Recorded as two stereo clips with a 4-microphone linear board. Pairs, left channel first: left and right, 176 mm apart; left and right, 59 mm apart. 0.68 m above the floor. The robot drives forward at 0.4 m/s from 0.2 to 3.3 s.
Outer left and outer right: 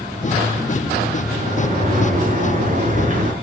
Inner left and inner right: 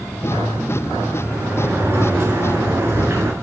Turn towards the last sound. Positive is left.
turn(degrees=-50)  # may be behind; listen again after turning